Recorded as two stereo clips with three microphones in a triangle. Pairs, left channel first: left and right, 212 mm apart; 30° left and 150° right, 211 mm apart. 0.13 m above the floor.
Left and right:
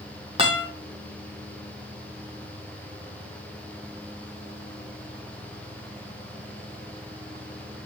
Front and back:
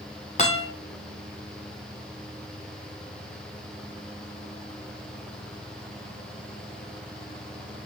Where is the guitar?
25° right, 5 m.